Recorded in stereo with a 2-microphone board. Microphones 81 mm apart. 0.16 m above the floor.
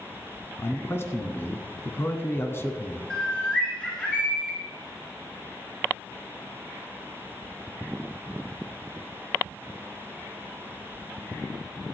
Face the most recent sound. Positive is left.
turn(degrees=15)  # may be behind; listen again after turning